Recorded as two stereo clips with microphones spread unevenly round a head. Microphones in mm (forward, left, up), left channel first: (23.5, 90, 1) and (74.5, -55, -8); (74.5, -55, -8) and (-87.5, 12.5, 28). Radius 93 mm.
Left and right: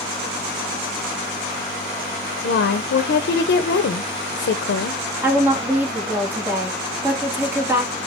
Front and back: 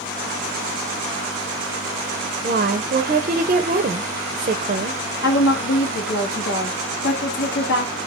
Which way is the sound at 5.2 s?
5° left.